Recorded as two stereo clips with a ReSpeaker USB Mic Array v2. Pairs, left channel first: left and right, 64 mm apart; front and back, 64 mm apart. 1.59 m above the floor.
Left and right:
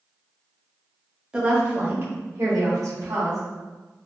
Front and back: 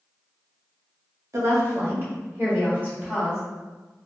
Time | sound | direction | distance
1.3 | a woman speaking | 165° right | 0.9 m